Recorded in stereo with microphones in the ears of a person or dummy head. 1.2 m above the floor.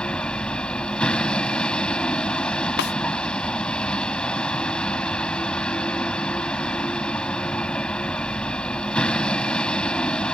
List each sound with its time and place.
0.0 s a vehicle: 5° left (ahead or behind)
2.8 s a snare drum: 50° left (ahead or behind)